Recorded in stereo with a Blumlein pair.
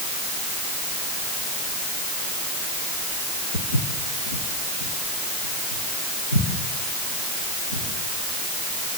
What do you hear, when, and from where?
3.5 s footsteps: 65° left, 4.5 m; by 7.9 s 75° left, 9.5 m